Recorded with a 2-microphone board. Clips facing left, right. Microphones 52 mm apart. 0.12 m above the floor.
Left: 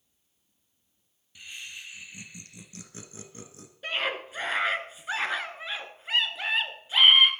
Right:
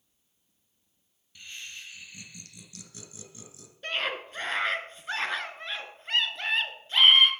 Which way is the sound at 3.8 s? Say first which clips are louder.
Left 1 dB; 10° left (ahead or behind).